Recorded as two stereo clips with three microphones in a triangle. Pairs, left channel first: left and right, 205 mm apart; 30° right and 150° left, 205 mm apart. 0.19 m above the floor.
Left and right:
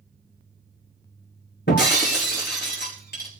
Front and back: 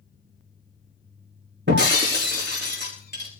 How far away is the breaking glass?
About 6 m.